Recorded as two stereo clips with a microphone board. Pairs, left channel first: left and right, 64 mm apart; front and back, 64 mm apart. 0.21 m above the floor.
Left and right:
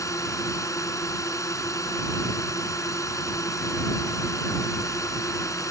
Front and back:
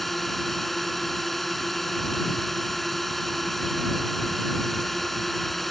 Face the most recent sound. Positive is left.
turn(degrees=85)